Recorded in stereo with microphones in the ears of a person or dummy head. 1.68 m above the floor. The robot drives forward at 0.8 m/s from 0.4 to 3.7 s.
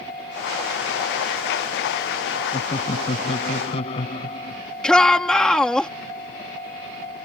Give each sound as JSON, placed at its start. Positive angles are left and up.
{"t": 2.5, "sound": "laughter", "side_deg": 35}
{"t": 4.8, "sound": "a shout", "side_deg": 5}